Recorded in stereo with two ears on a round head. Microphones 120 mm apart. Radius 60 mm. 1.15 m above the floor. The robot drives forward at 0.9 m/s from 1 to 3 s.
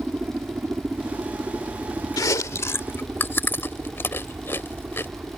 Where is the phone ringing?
No phone ringing in this recording.